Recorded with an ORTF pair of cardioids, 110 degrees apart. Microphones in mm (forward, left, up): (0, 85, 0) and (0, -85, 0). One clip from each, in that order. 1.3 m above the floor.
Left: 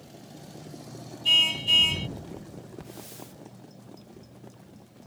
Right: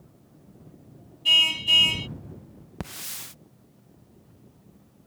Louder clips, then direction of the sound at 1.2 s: Right 2 dB; 10° right.